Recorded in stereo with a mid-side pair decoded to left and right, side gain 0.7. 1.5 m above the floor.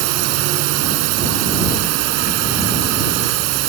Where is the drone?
70° right.